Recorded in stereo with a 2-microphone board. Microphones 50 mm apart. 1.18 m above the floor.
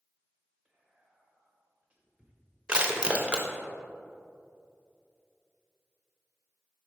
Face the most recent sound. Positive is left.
turn(degrees=-20)  # may be behind; listen again after turning